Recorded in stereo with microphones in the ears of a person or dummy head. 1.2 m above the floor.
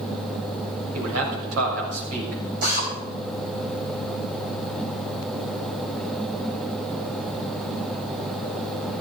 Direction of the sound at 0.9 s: 85° right.